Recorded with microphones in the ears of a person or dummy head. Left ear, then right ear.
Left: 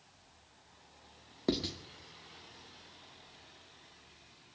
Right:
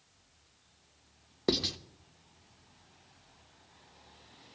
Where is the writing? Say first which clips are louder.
Right 4 dB; 15° right (ahead or behind), 0.9 m.